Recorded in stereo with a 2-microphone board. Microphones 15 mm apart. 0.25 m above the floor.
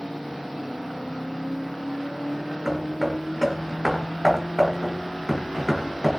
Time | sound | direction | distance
2.6 | hammering | 10° right (ahead or behind) | 3.5 m